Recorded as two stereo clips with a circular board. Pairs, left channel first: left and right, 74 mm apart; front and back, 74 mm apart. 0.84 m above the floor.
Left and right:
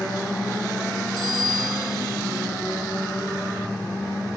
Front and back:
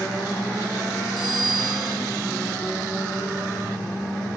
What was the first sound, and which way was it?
A bicycle bell, straight behind.